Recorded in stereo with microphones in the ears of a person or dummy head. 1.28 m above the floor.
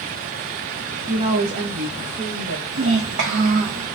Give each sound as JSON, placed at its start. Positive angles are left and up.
{"t": 1.1, "sound": "a woman speaking", "side_deg": -20, "distance_m": 0.6}
{"t": 2.7, "sound": "a child speaking", "side_deg": -70, "distance_m": 0.7}